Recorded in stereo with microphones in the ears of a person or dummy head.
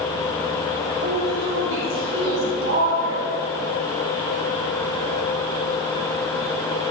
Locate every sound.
1.0 s a woman speaking: 60° right (ahead or behind), 3.5 m; by 3.3 s 85° right, 4.5 m